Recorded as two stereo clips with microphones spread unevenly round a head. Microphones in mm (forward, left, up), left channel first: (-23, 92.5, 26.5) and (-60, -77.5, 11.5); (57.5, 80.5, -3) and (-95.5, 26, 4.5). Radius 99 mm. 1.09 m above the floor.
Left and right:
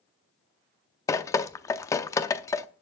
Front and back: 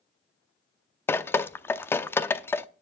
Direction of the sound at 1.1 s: 80° left.